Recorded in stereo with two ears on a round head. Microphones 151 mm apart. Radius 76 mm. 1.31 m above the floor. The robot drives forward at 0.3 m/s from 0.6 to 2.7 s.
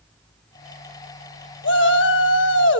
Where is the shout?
75° left (ahead or behind), 1.9 m; by 2.8 s 80° left, 1.9 m.